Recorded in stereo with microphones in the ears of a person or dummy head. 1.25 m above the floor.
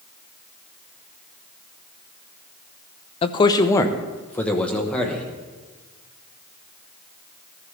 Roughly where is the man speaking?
Left.